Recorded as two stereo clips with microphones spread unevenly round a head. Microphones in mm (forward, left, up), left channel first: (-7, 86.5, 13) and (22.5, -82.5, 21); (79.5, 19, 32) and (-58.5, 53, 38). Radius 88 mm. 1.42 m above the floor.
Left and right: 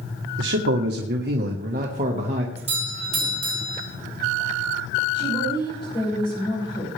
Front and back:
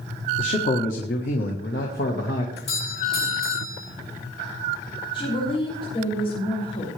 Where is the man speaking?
70° right, 1.4 m; by 2.5 s 25° right, 2.0 m.